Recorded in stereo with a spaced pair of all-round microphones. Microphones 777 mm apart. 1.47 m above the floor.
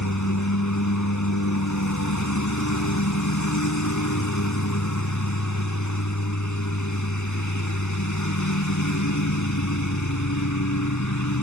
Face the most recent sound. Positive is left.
turn(degrees=20)  # may be behind; listen again after turning